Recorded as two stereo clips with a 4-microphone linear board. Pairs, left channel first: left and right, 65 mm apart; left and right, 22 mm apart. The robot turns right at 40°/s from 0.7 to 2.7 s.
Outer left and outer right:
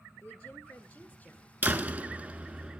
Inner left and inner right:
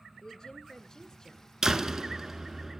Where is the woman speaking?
20° left (ahead or behind), 1.1 m; by 1.5 s 25° left (ahead or behind), 1.1 m.